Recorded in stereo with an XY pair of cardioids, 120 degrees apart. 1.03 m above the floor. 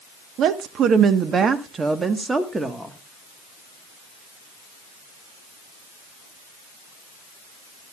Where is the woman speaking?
65° right, 1.3 m; by 2.9 s 10° right, 1.6 m.